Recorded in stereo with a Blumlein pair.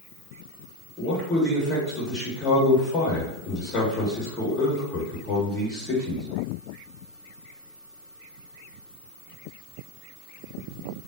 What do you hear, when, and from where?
1.0 s a man speaking: 25° left, 0.9 m